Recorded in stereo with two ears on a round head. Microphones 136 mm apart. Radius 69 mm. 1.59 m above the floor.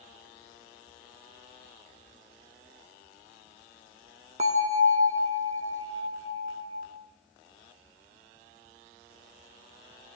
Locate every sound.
4.4 s a bell: 45° right (ahead or behind), 1.5 m